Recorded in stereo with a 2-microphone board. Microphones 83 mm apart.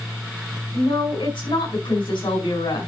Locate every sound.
0.7 s a woman speaking: 80° left, 5 m